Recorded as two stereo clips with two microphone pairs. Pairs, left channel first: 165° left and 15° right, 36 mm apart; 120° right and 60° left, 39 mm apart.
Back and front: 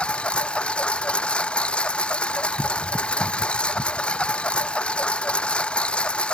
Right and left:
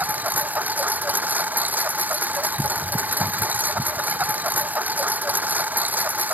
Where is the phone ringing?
I don't hear a phone ringing.